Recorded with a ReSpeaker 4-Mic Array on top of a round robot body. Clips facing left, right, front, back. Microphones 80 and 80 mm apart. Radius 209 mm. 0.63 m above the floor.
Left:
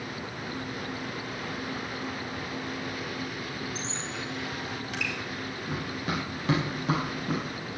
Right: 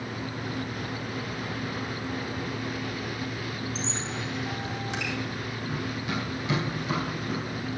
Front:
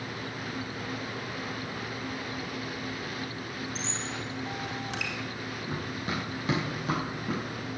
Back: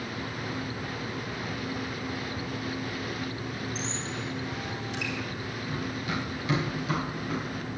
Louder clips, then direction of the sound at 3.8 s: Right 2 dB, back 1 dB; 25° right.